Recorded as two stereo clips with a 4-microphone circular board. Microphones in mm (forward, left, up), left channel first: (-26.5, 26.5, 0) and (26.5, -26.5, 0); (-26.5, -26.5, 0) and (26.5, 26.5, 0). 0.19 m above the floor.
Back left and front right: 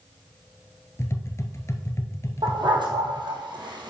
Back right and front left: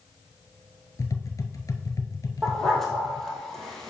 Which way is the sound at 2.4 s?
50° right.